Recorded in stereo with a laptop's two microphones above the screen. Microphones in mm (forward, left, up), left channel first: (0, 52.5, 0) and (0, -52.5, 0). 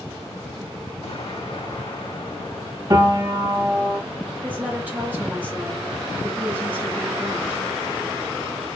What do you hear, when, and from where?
1.0 s an explosion: 75° left (ahead or behind), 1.8 m
2.9 s a piano: 40° right (ahead or behind), 1.4 m
4.4 s a woman speaking: 15° right (ahead or behind), 1.2 m